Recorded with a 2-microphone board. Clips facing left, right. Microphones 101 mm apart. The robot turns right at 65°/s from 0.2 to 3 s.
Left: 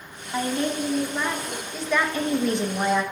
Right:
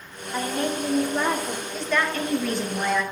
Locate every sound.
0.3 s a woman speaking: 135° left, 1.9 m; by 1.6 s 140° right, 1.9 m
1.7 s a woman speaking: 5° left (ahead or behind), 1.1 m; by 3.0 s 25° left (ahead or behind), 1.1 m